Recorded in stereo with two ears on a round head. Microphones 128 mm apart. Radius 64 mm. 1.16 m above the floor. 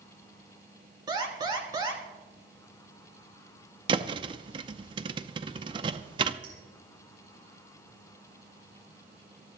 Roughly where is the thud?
Right.